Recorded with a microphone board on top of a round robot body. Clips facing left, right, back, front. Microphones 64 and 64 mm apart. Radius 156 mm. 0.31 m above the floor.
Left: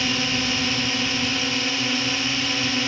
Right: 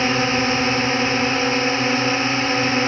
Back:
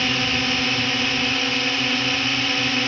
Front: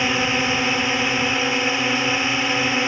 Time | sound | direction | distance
0.0 | a drone | 65° right | ?